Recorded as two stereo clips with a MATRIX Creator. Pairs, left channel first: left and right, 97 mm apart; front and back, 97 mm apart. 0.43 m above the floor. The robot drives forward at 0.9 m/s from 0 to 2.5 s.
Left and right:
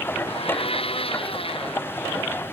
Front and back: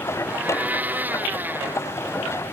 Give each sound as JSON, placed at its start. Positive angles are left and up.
{"t": 0.3, "sound": "a blender", "azimuth_deg": 105}